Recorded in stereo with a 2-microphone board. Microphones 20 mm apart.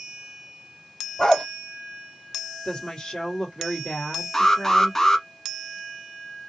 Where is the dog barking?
35° left (ahead or behind), 1.5 m.